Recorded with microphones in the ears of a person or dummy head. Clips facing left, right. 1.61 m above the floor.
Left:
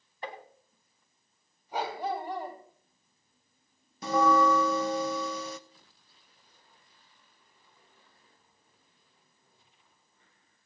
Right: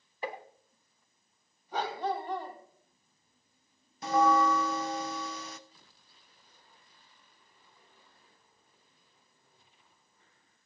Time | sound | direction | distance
0.2 | tapping | 10° right (ahead or behind) | 1.2 m
1.7 | a dog barking | 10° left (ahead or behind) | 3 m
4.0 | a bell | 80° left | 0.8 m